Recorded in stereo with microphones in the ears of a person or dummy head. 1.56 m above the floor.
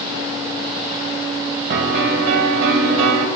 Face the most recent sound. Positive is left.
turn(degrees=-70)  # may be behind; listen again after turning